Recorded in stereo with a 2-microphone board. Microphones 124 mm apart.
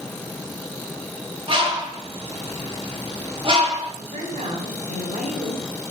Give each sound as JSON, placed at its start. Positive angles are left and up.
{"t": 1.5, "sound": "a bird", "side_deg": -45, "distance_m": 1.6}
{"t": 4.0, "sound": "a woman speaking", "side_deg": -70, "distance_m": 3.0}